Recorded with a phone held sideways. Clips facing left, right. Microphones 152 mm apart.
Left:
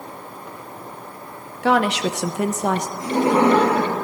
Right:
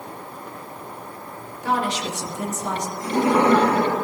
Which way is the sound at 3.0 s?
30° left (ahead or behind).